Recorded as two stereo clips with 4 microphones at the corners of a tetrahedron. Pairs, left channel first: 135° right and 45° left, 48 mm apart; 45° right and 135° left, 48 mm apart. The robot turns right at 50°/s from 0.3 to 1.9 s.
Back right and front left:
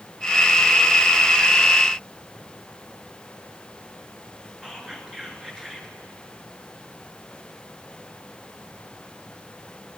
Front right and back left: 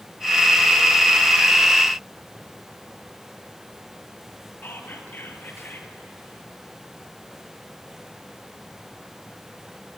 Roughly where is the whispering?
Ahead right.